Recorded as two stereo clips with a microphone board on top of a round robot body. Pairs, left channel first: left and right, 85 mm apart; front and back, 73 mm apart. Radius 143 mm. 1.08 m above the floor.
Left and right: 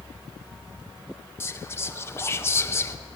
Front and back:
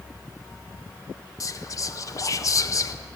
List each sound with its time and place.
1.4 s whispering: 35° left, 0.6 m